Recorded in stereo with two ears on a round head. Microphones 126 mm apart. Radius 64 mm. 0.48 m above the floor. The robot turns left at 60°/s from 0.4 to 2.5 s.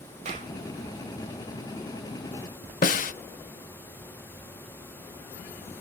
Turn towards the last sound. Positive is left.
turn(degrees=60)  # may be behind; listen again after turning